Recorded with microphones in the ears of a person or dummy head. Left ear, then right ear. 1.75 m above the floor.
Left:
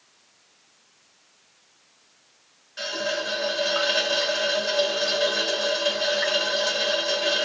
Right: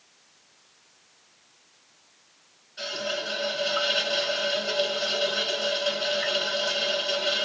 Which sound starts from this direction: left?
A running tap, at 2.8 s.